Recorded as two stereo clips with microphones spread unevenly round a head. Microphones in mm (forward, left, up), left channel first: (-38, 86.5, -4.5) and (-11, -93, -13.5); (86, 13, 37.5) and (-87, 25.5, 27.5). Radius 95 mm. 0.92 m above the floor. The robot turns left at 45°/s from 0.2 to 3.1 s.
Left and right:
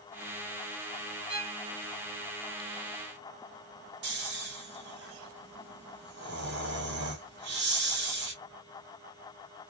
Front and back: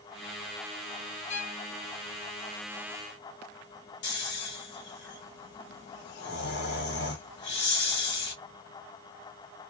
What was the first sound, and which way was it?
A violin, 15° right.